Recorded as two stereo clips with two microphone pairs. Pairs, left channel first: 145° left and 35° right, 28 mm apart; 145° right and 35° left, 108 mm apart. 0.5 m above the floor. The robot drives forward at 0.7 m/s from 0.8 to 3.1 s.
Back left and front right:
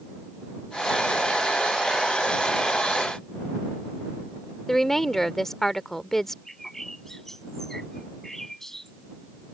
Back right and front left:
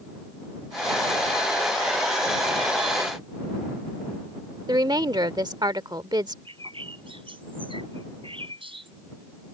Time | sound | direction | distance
4.7 | a woman speaking | 70° left | ?
6.5 | a bird | 70° left | ?